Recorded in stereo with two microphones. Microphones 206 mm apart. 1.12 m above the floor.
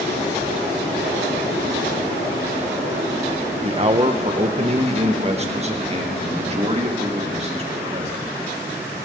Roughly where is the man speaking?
Right.